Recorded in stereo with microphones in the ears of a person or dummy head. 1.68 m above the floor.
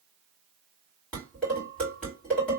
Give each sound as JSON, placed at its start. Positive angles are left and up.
{"t": 1.1, "sound": "dishes clattering", "side_deg": 5, "distance_m": 2.5}